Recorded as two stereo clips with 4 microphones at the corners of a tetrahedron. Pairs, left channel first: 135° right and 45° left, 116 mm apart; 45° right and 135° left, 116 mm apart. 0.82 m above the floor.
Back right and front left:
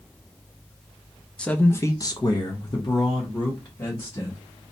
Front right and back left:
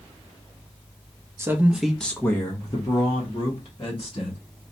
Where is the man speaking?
150° left, 0.5 m; by 4.4 s 85° right, 1.6 m.